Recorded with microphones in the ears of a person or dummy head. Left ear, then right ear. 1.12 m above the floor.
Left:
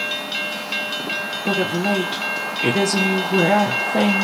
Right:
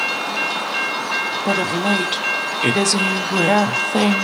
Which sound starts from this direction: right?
A woman speaking, at 1.4 s.